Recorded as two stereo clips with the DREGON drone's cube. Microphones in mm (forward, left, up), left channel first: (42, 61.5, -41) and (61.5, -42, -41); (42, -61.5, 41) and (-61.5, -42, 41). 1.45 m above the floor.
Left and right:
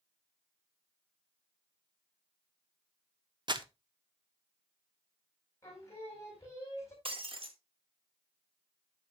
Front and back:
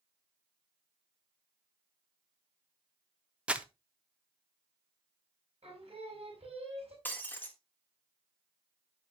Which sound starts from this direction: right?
Breaking glass, at 7.0 s.